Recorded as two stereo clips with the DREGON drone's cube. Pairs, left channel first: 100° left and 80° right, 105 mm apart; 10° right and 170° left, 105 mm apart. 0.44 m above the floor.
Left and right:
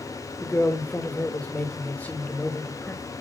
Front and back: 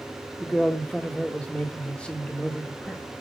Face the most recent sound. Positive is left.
turn(degrees=50)